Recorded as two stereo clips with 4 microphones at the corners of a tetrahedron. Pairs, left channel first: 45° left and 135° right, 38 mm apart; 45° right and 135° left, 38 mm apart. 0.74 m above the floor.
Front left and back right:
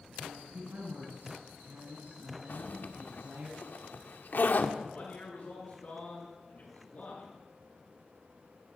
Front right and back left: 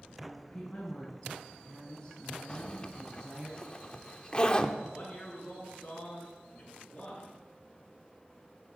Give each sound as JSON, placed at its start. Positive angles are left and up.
{"t": 0.2, "sound": "a woman speaking", "azimuth_deg": -105, "distance_m": 7.5}
{"t": 2.5, "sound": "a zipper", "azimuth_deg": 15, "distance_m": 0.9}
{"t": 4.8, "sound": "a man speaking", "azimuth_deg": 5, "distance_m": 7.5}